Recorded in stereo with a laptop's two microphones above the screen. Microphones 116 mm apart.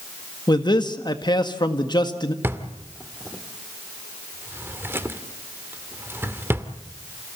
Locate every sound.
0.5 s a man speaking: 40° left (ahead or behind), 1.7 m
2.4 s a drawer: 20° right (ahead or behind), 1.6 m